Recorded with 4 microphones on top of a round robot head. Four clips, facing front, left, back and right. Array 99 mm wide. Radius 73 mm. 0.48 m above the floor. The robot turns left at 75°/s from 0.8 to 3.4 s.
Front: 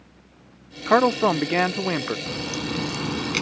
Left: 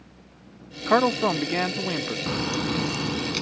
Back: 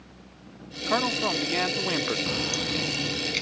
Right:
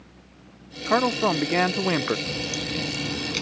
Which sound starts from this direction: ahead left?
A man speaking, at 0.9 s.